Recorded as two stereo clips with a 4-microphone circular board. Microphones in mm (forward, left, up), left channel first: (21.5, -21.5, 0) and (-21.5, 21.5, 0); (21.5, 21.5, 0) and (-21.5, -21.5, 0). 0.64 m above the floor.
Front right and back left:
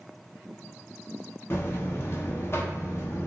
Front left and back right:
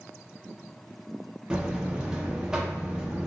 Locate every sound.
1.5 s a buzzer: 65° right, 0.6 m